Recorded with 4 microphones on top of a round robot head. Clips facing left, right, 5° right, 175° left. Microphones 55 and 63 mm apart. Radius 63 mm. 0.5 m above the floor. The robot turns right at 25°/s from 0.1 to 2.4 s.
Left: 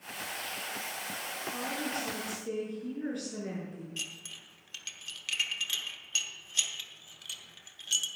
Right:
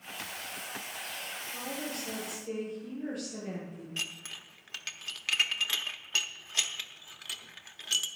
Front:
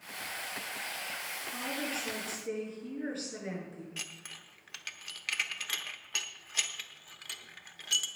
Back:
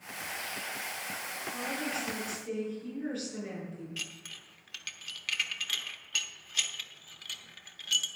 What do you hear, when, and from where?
1.5 s a woman speaking: 30° left, 6.5 m; by 3.9 s 50° left, 6.5 m
4.0 s dishes clattering: 60° right, 0.9 m